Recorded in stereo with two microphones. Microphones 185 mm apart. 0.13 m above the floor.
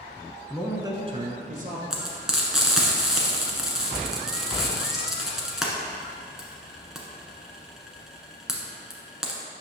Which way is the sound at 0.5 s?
Centre (ahead or behind).